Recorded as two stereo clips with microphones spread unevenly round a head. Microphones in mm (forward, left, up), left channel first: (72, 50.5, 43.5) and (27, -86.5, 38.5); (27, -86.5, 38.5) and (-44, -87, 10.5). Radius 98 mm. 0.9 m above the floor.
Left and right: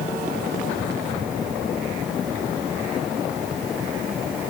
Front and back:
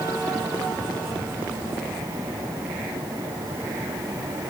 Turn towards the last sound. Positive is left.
No sound to turn to.